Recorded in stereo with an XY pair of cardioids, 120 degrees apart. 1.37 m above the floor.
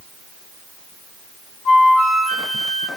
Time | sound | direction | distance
1.6 | a flute | 65° left | 2.5 m